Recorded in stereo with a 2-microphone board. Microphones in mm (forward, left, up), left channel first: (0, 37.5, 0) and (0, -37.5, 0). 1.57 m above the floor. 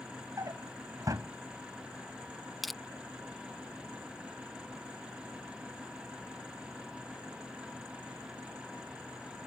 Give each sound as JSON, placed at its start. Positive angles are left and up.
{"t": 0.4, "sound": "a drawer", "side_deg": -50}
{"t": 2.6, "sound": "crushing", "side_deg": 0}